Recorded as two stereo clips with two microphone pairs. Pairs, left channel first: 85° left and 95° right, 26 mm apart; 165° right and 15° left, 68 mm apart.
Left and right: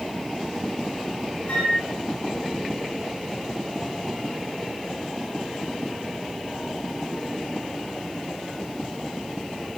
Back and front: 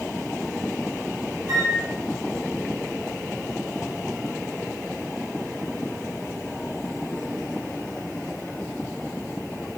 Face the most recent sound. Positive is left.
turn(degrees=45)